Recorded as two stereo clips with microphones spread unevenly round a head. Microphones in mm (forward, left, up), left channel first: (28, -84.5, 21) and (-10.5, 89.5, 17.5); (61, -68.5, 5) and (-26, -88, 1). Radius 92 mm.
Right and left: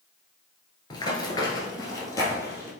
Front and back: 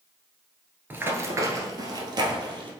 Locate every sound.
0.9 s running footsteps: 120° right, 1.3 m; by 2.7 s 150° right, 2 m